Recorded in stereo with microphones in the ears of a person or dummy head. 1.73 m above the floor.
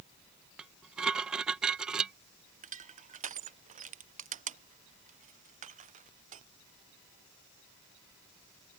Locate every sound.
0.6 s dishes clattering: 5° right (ahead or behind)
2.6 s crushing: 30° right (ahead or behind)